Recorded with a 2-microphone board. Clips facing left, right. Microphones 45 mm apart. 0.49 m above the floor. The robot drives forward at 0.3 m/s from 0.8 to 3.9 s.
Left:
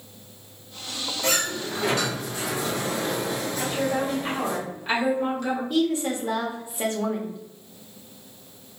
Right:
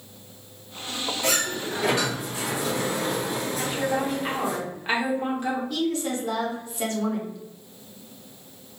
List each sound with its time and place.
1.2 s a sliding door: 10° right (ahead or behind), 1.7 m; by 4.6 s 15° right (ahead or behind), 1.2 m
3.6 s a woman speaking: 20° right (ahead or behind), 1.3 m
5.7 s a woman speaking: 25° left (ahead or behind), 1.2 m